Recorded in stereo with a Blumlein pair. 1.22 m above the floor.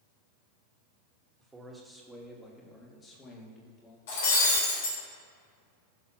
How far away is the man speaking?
About 2 m.